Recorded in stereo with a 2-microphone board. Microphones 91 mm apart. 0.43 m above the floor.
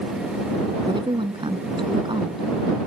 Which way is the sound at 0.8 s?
70° right (ahead or behind).